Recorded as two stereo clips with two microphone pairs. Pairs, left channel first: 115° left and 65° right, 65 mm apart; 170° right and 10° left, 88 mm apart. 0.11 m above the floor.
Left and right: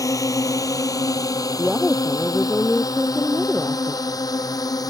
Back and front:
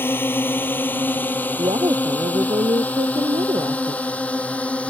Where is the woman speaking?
25° left.